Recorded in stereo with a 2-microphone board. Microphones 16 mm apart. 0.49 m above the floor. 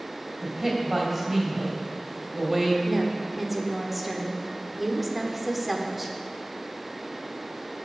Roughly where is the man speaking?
Right.